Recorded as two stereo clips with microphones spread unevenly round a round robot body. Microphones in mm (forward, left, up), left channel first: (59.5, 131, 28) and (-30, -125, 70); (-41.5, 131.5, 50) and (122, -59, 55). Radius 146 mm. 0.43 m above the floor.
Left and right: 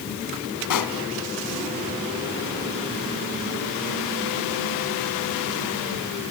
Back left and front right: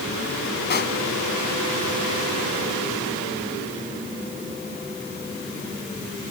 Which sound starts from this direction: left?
A pop, at 0.7 s.